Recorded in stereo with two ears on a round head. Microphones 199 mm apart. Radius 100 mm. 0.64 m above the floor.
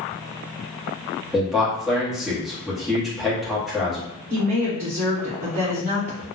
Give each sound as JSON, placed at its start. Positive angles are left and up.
{"t": 1.3, "sound": "a man speaking", "side_deg": 0, "distance_m": 0.9}
{"t": 4.3, "sound": "a woman speaking", "side_deg": -45, "distance_m": 1.7}